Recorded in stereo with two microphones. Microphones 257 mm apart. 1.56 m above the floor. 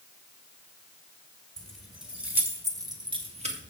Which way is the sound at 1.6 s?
5° left (ahead or behind).